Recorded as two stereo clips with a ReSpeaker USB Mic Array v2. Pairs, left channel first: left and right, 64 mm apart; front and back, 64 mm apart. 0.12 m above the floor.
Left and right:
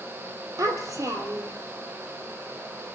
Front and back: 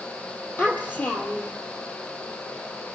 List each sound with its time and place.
0.6 s a child speaking: 60° right, 2.5 m